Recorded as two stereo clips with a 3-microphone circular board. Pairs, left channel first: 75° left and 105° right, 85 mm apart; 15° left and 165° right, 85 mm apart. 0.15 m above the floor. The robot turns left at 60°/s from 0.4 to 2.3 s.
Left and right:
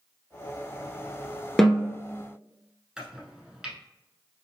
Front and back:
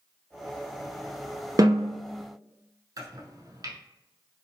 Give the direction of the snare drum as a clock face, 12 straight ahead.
7 o'clock.